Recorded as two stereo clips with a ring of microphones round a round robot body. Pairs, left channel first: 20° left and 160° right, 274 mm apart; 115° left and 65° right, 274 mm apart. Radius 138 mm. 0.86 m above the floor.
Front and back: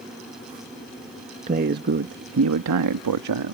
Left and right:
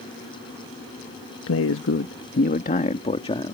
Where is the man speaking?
140° left; by 3.5 s 175° right.